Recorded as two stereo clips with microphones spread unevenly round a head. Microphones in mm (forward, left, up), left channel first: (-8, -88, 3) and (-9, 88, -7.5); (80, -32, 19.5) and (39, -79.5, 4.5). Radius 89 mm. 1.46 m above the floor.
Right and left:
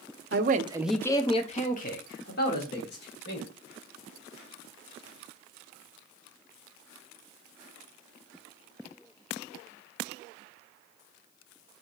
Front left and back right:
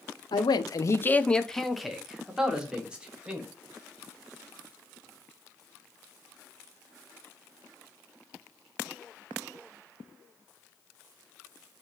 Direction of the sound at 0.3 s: 55° left.